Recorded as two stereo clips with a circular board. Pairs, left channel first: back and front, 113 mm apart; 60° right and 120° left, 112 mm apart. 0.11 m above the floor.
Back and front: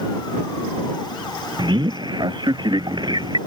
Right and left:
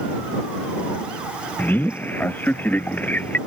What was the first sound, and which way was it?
A man speaking, 5° left.